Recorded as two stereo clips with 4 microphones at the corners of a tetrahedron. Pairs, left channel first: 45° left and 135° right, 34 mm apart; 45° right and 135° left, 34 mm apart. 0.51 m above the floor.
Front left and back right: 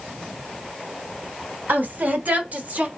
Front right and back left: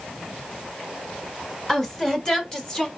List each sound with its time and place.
1.7 s a woman speaking: 120° right, 2 m; by 2.9 s 100° right, 1.7 m